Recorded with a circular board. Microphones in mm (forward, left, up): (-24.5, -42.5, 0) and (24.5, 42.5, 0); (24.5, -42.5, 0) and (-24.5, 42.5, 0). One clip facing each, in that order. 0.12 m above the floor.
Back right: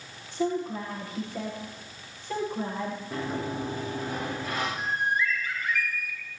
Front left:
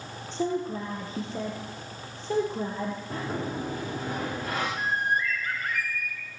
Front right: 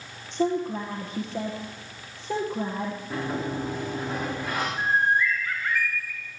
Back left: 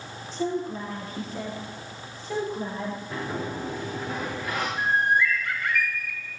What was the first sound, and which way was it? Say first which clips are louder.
A woman speaking: even, front right 3 dB; straight ahead.